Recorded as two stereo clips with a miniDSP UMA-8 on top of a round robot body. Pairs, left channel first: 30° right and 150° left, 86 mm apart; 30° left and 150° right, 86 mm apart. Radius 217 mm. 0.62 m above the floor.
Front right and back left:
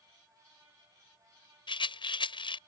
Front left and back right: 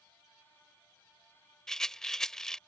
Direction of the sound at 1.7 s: 55° right.